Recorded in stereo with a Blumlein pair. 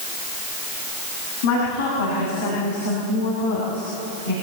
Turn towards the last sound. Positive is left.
turn(degrees=70)